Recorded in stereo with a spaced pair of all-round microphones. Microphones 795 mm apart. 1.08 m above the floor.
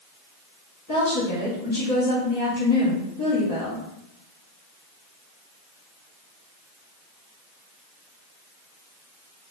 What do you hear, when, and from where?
0.9 s a woman speaking: 25° left (ahead or behind), 1.8 m